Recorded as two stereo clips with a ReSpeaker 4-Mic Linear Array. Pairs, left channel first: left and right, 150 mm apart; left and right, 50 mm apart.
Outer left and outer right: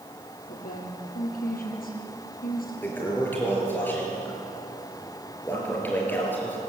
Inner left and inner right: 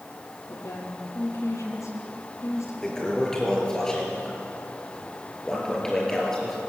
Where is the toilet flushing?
15° left (ahead or behind), 5.5 m.